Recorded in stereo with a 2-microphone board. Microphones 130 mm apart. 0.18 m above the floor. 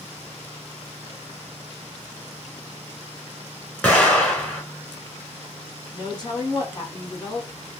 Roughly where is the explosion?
Centre.